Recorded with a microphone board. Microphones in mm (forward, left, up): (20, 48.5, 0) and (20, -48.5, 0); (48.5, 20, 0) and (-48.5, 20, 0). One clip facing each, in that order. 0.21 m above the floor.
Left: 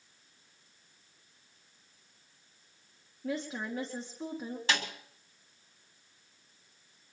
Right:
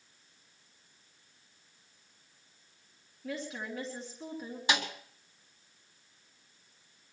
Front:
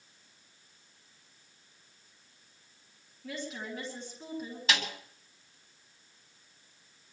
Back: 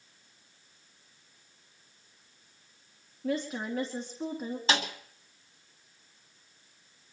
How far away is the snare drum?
About 1.7 m.